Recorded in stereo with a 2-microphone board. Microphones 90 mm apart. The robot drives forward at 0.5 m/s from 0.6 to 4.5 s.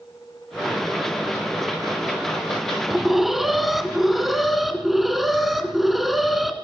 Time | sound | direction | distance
2.9 | an alarm | centre (ahead or behind) | 0.7 m